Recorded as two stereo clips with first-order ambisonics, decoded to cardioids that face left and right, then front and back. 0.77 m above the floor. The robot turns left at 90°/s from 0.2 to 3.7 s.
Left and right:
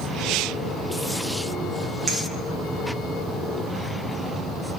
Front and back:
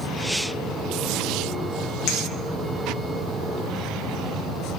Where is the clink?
30° right, 0.5 m; by 2.2 s 40° right, 0.5 m.